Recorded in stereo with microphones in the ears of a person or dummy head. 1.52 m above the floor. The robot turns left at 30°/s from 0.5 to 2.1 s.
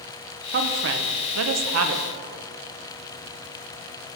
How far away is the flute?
I don't hear a flute.